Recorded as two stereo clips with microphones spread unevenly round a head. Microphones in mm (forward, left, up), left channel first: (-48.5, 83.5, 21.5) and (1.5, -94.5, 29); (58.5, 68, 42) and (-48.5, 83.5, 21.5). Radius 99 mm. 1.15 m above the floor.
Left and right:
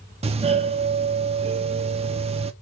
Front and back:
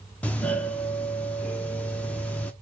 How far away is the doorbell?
About 0.5 m.